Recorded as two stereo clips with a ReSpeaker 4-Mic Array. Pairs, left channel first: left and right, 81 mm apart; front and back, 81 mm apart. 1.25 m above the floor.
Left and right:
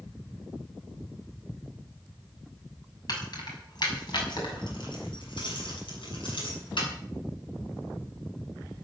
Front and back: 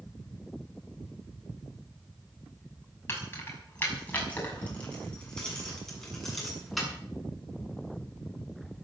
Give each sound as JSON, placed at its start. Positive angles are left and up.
{"t": 3.1, "sound": "keys jangling", "azimuth_deg": 60, "distance_m": 6.0}